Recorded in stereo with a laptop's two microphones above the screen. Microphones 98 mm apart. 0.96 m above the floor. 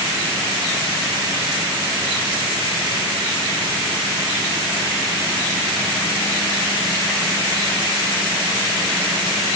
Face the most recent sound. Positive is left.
No sound to turn to.